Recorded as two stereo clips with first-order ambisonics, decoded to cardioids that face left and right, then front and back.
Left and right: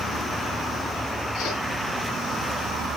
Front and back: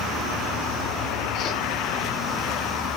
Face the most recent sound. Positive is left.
turn(degrees=45)